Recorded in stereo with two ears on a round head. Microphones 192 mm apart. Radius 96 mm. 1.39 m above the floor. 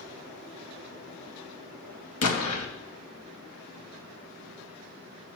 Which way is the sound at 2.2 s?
85° left.